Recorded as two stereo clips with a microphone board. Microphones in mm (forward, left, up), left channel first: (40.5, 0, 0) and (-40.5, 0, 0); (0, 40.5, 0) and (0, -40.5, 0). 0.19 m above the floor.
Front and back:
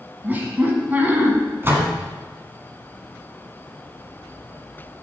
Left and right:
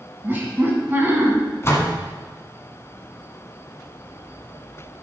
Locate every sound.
0.2 s laughter: 130° right, 1.5 m
1.6 s a door slam: 130° left, 1.4 m